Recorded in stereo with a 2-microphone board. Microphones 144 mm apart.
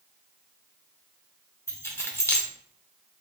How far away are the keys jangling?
About 0.7 m.